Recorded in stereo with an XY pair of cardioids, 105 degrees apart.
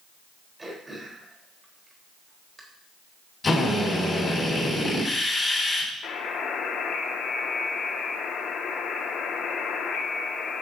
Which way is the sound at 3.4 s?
35° left.